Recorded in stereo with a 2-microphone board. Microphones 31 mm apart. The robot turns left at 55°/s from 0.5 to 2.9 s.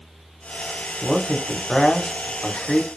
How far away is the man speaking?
About 0.9 m.